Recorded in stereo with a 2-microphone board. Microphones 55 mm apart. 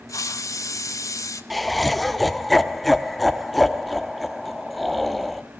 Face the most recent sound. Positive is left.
turn(degrees=0)  # may be behind; listen again after turning